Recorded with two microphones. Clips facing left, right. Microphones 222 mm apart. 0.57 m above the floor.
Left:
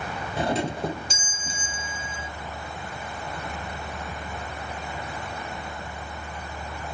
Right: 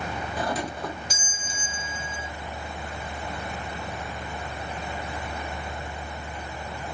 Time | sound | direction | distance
0.4 | a doorbell | 25° left (ahead or behind) | ?